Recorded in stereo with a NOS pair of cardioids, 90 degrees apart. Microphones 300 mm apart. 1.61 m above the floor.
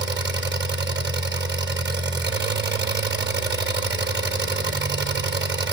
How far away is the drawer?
I don't hear a drawer.